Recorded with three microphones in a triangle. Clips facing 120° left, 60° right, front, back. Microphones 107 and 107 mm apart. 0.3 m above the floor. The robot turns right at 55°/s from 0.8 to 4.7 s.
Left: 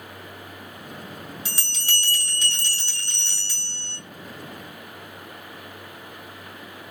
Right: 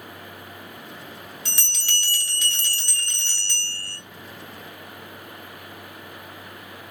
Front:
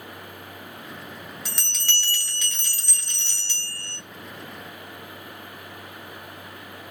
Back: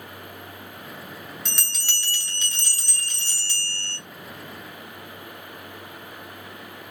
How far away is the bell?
About 1.3 m.